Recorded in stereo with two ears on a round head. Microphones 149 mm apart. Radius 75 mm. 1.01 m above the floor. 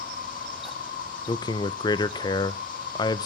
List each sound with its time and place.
0.0 s an insect: 55° left (ahead or behind), 1.4 m
1.3 s a man speaking: 25° left (ahead or behind), 0.6 m